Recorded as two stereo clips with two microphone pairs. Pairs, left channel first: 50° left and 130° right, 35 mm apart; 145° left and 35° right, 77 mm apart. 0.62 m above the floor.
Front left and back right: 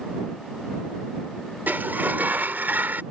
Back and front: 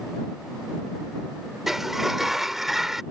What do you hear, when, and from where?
1.7 s a sliding door: 120° right